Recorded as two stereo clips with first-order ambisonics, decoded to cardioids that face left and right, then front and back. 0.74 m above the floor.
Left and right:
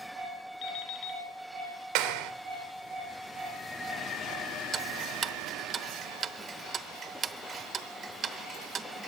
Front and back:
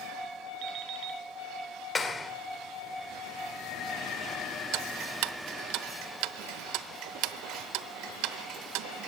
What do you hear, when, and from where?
0.6 s an alarm clock: 135° left, 4.5 m
1.9 s a clap: 75° right, 2 m
4.7 s ticking: 155° right, 0.9 m